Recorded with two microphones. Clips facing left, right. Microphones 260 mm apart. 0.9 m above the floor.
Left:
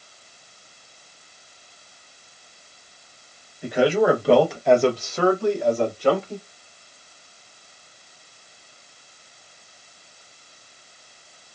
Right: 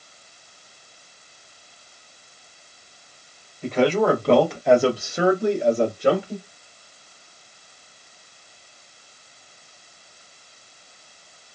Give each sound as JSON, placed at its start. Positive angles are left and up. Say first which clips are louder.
{"t": 3.6, "sound": "a man speaking", "louder": "left 1 dB", "side_deg": 15, "distance_m": 1.1}